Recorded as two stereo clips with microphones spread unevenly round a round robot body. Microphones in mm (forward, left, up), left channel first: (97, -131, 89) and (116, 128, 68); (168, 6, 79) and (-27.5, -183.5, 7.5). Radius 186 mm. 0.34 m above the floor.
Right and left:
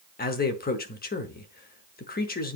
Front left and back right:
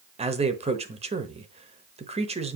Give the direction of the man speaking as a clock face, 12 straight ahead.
4 o'clock.